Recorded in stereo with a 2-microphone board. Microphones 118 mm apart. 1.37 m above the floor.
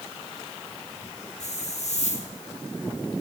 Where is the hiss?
70° left (ahead or behind), 5 m.